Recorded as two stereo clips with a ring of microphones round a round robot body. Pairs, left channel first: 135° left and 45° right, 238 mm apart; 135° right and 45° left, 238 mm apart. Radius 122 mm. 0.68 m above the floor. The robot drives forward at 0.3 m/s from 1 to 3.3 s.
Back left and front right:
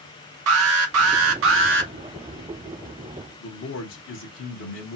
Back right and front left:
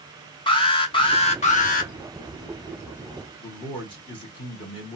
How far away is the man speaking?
About 1.1 m.